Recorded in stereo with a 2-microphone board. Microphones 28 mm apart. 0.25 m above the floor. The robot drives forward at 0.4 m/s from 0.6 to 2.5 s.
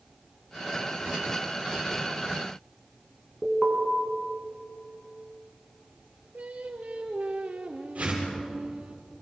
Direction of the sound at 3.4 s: 10° right (ahead or behind).